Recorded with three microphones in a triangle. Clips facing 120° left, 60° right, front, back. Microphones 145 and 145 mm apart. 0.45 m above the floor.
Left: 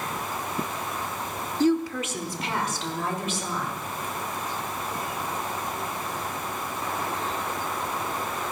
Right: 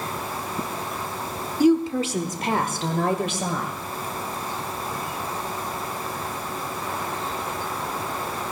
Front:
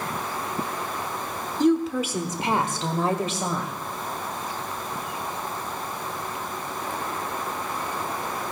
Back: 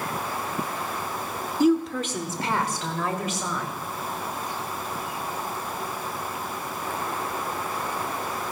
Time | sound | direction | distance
1.6 | a woman speaking | 115° right | 0.7 m